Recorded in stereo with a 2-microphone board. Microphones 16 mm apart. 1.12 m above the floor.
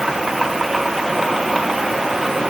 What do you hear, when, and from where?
Only background noise.